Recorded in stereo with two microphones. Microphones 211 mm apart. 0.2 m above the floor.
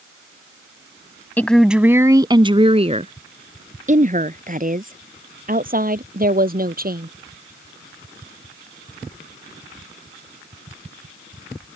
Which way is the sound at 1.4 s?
10° left (ahead or behind).